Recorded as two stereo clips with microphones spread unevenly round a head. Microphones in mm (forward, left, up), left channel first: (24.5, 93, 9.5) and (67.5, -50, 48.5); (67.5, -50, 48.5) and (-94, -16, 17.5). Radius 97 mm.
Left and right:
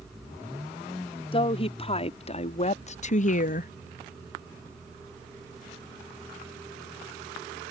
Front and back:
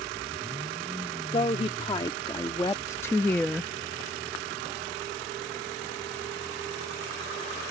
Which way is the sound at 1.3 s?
50° left.